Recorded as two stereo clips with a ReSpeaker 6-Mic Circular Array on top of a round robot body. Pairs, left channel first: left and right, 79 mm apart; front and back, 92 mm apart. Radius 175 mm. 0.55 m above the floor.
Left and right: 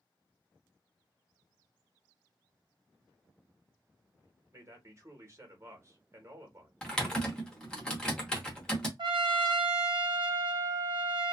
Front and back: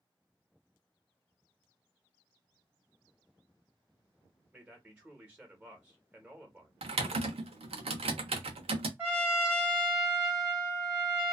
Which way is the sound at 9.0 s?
110° right.